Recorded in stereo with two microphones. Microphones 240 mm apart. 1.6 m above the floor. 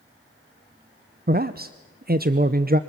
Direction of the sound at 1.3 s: 40° right (ahead or behind).